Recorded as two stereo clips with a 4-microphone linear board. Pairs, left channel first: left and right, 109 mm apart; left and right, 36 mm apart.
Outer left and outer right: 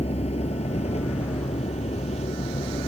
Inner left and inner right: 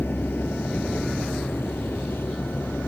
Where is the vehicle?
75° left (ahead or behind).